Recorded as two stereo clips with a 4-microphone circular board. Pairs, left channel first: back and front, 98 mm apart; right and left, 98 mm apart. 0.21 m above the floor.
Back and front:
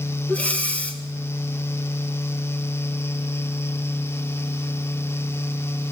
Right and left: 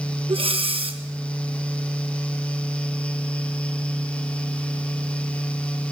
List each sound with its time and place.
0.3 s breathing: 105° left, 1.8 m